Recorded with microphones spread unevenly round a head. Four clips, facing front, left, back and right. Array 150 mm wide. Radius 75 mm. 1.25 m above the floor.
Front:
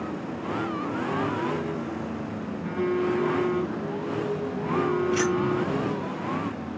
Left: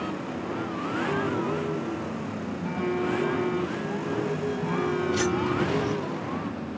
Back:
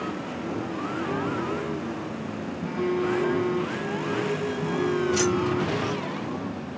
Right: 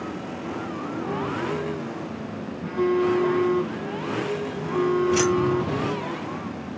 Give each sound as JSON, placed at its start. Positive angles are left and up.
{"t": 2.6, "sound": "a phone buzzing", "azimuth_deg": -90, "distance_m": 6.0}
{"t": 5.1, "sound": "keys jangling", "azimuth_deg": -100, "distance_m": 7.0}